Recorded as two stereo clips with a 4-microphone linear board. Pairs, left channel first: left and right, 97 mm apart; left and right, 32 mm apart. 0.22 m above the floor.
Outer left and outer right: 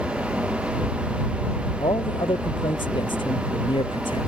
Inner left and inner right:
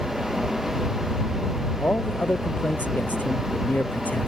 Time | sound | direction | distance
1.8 | a man speaking | 55° left (ahead or behind) | ?